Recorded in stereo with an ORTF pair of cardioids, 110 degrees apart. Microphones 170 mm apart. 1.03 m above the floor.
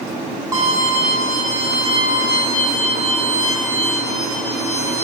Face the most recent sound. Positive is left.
turn(degrees=-20)